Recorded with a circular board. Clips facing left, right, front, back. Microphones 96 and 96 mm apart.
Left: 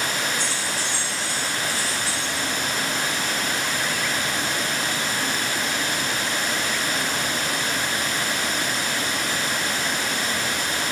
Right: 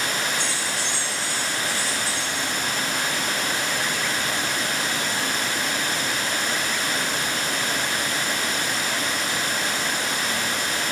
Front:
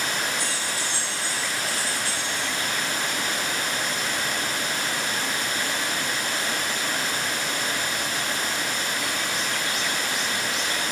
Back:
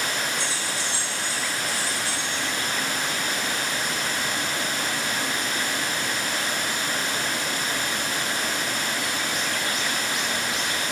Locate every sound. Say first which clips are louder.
0.4 s keys jangling: even, even; 115° right, 0.7 m